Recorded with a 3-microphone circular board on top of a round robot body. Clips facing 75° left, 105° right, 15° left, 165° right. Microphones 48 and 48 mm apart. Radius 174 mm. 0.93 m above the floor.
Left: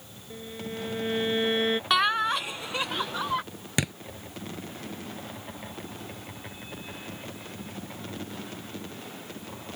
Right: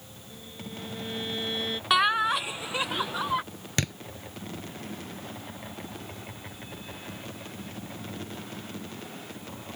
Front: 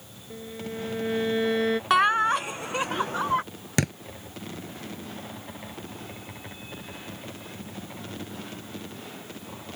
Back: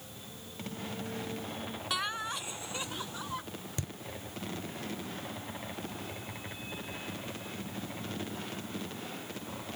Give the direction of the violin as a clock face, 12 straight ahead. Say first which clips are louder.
Left 6 dB, front 9 dB; 11 o'clock.